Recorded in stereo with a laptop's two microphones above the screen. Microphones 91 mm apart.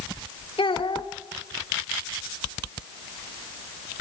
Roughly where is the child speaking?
Left.